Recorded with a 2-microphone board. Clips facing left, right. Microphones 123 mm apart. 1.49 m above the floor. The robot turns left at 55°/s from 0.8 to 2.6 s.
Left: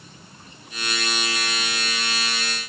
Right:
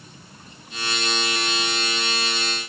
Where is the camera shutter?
No camera shutter in this recording.